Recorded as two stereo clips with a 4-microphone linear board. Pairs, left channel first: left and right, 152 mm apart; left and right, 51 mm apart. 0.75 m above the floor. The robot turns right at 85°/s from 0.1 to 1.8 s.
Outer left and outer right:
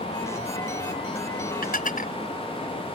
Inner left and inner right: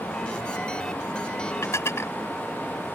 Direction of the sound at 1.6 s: 80° left.